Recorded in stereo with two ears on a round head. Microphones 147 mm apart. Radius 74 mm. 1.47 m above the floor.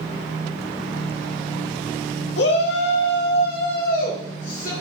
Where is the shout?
75° left (ahead or behind), 1.0 m; by 4.7 s 50° left (ahead or behind), 2 m.